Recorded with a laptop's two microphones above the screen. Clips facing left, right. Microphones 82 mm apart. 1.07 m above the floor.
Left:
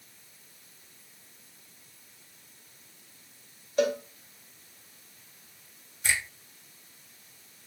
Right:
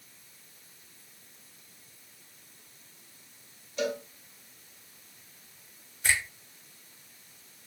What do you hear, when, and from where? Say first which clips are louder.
3.8 s a cowbell: left 5 dB; 55° left (ahead or behind), 1.4 m
6.0 s a finger snap: right 2 dB; 50° right (ahead or behind), 3.5 m